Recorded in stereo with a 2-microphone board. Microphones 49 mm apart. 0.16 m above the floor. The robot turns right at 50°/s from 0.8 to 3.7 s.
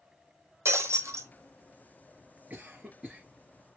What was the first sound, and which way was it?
Breaking glass, 65° right (ahead or behind).